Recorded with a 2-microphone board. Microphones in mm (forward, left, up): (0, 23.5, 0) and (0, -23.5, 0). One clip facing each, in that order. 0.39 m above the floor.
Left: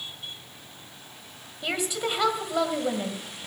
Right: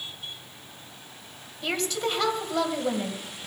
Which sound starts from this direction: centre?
A woman speaking, at 1.6 s.